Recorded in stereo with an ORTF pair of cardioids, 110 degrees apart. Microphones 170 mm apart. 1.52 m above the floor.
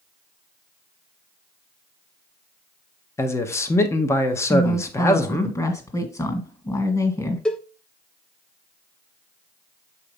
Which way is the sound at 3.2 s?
15° left.